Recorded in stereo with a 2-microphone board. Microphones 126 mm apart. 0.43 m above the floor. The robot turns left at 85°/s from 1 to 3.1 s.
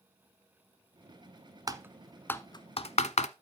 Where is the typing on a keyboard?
35° right (ahead or behind), 0.6 m; by 3.3 s 70° left (ahead or behind), 0.6 m.